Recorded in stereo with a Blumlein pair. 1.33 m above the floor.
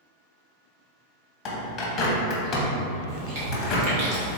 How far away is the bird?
About 1.0 m.